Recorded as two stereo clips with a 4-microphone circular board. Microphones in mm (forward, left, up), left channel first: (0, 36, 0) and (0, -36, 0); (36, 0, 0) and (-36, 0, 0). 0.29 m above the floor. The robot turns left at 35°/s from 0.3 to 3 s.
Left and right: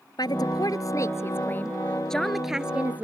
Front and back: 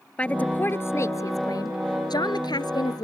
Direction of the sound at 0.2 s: 75° left.